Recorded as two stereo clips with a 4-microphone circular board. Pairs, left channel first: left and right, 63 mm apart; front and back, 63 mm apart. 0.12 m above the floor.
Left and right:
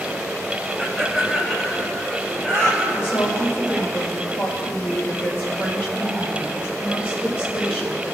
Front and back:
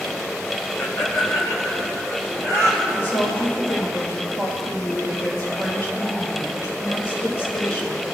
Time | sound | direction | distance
0.8 | laughter | straight ahead | 1.9 m
2.9 | a woman speaking | 40° left | 3.5 m